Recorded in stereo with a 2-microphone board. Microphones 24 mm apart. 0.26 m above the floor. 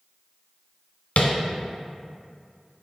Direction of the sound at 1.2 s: 65° left (ahead or behind).